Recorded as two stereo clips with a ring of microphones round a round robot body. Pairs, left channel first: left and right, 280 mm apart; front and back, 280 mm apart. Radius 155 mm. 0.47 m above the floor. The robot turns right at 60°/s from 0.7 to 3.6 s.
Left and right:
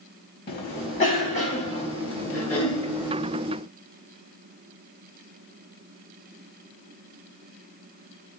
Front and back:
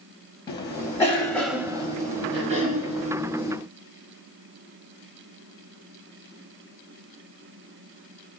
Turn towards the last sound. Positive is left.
turn(degrees=-135)